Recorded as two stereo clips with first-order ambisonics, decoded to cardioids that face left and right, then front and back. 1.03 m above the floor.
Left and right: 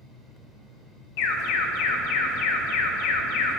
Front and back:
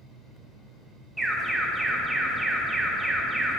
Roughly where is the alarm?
Left.